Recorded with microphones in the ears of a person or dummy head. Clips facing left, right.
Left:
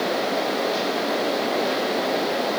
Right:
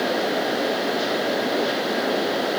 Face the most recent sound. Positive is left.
No sound to turn to.